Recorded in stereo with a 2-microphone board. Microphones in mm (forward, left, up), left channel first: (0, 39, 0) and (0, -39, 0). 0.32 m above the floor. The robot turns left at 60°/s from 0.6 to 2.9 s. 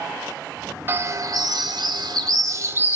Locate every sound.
0.9 s a bird: 30° right, 0.5 m; by 3.0 s 155° right, 0.5 m